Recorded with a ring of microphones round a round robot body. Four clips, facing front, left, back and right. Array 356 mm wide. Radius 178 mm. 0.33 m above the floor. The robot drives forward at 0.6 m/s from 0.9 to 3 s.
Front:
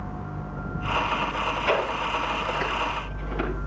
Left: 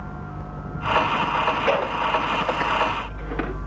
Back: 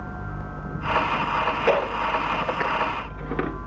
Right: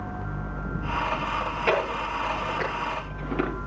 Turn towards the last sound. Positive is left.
turn(degrees=-170)